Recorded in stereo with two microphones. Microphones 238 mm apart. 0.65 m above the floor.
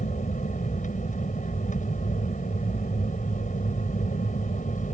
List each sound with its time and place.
0.0 s an aircraft: 35° left (ahead or behind)